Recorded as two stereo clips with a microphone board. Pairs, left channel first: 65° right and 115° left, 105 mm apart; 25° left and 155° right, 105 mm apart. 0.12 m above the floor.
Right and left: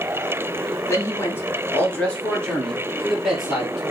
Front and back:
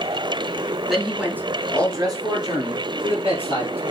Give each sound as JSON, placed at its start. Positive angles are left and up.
{"t": 0.9, "sound": "a man speaking", "azimuth_deg": -70, "distance_m": 1.2}